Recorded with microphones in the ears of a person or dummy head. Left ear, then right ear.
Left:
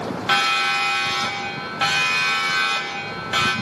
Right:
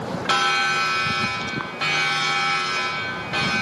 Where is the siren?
10° left (ahead or behind), 4 m; by 3.5 s 40° left (ahead or behind), 4.5 m.